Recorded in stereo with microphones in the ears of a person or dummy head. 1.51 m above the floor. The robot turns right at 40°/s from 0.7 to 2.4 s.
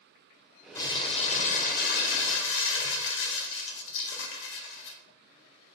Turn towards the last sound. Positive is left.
turn(degrees=85)